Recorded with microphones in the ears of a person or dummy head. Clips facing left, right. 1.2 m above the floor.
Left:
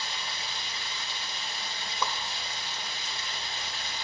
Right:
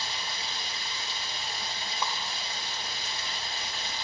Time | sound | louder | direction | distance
0.0 | running water | right 1 dB | 30° right (ahead or behind) | 1.5 m
2.0 | a whoosh | left 2 dB | 60° left (ahead or behind) | 0.5 m